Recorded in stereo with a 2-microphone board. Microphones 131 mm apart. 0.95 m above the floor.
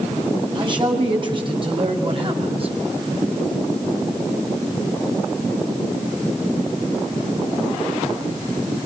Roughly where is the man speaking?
Right.